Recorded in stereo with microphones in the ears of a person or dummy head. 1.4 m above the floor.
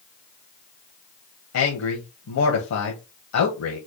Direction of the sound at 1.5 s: 80° left.